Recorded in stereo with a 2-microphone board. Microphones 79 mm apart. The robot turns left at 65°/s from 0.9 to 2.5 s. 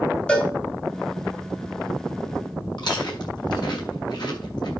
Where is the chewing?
65° left (ahead or behind), 6.5 m.